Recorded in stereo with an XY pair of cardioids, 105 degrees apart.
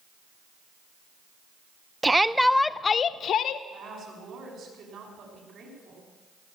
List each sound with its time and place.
2.0 s a shout: 15° right, 0.6 m; by 3.6 s 75° left, 0.7 m
3.7 s a woman speaking: 55° right, 6 m